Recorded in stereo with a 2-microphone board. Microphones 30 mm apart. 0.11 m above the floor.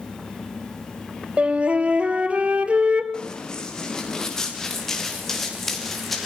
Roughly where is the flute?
Right.